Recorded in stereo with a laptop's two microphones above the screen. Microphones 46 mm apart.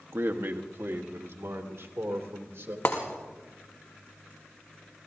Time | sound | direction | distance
0.1 | a man speaking | 60° right (ahead or behind) | 1.1 m
2.9 | breaking glass | 65° left (ahead or behind) | 3.5 m